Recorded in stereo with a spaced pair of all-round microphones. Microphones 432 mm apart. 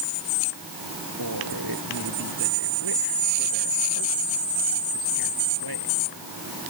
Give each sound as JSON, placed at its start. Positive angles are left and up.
{"t": 1.2, "sound": "a man speaking", "side_deg": -55}